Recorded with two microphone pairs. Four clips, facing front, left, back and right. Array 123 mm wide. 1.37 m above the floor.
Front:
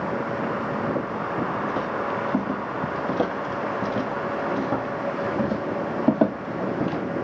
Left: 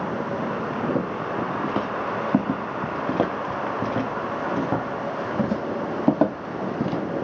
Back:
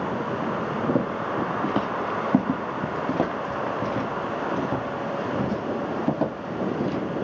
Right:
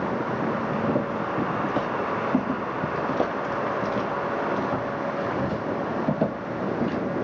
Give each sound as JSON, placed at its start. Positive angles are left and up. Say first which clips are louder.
{"t": 0.9, "sound": "footsteps", "louder": "even, back 2 dB", "azimuth_deg": 165, "distance_m": 2.0}